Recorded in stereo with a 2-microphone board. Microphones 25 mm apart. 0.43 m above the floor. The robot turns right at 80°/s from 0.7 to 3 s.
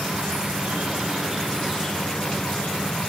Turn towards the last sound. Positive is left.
turn(degrees=105)